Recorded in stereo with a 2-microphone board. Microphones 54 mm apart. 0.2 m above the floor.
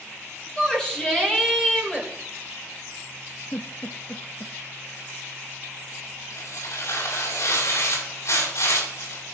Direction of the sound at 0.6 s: 15° left (ahead or behind).